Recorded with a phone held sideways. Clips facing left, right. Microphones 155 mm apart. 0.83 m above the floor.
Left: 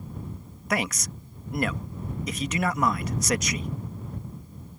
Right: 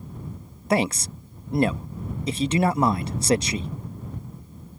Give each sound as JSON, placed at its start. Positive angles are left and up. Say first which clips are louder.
{"t": 0.7, "sound": "a man speaking", "louder": "right 6 dB", "side_deg": -30}